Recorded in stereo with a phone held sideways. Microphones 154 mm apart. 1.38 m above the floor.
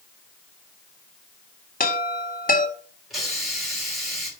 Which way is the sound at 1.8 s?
65° left (ahead or behind).